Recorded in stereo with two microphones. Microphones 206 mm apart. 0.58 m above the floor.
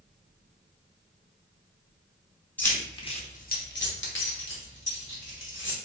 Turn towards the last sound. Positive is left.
turn(degrees=65)  # may be behind; listen again after turning